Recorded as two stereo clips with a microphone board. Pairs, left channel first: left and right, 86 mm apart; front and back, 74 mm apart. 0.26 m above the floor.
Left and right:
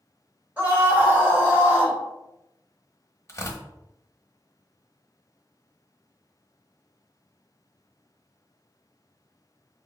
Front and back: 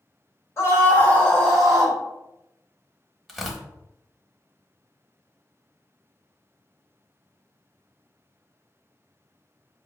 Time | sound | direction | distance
0.6 | a scream | 30° right | 1.5 m
3.3 | tearing paper | 90° left | 0.8 m